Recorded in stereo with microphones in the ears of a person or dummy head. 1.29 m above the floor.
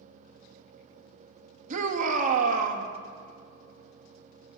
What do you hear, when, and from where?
1.7 s a shout: 40° right (ahead or behind), 2.5 m